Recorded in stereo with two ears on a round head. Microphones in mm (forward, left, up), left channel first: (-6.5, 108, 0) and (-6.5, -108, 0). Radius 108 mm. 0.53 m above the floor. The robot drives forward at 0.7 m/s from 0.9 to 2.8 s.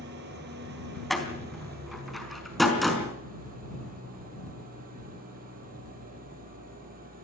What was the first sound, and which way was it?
An engine running, 45° right (ahead or behind).